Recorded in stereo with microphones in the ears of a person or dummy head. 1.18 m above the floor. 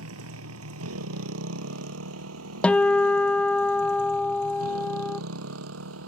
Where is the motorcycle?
85° right.